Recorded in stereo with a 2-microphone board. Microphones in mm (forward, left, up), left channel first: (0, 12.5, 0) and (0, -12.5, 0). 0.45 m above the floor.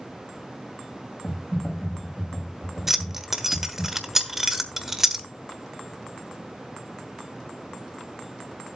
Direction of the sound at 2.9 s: 15° right (ahead or behind).